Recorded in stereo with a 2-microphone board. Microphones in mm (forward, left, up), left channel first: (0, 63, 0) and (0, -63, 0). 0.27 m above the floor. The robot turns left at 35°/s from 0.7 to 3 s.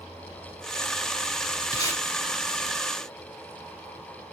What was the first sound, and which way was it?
Tape being pulled, 30° left (ahead or behind).